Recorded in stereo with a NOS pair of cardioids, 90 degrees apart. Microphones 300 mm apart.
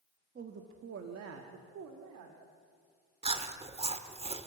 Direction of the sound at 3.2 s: 20° right.